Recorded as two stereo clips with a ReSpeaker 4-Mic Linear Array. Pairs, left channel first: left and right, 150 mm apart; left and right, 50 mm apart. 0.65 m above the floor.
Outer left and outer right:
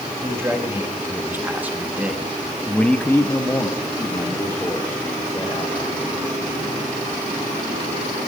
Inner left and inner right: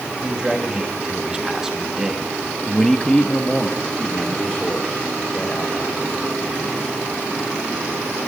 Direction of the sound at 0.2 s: 20° right (ahead or behind).